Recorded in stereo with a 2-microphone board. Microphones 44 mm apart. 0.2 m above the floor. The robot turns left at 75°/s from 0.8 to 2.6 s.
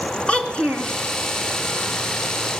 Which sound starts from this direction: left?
A child speaking, at 0.3 s.